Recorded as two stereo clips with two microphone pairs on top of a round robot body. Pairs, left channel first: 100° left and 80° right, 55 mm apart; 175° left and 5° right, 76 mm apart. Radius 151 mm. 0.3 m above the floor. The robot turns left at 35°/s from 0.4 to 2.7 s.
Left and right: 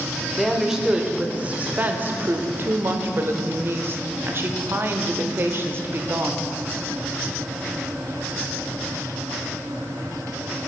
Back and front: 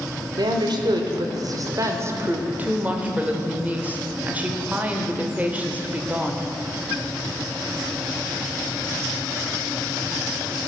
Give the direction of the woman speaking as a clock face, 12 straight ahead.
12 o'clock.